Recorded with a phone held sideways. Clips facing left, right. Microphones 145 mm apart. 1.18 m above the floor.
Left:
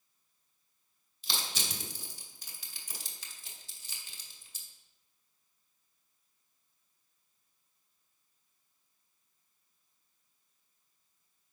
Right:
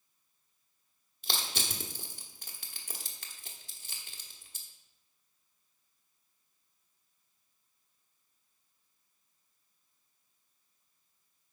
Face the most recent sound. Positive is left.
turn(degrees=-60)  # may be behind; listen again after turning